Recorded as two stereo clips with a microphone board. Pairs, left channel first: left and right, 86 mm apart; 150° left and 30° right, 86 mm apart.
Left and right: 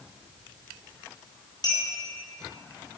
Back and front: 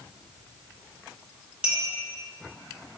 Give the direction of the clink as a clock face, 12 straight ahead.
10 o'clock.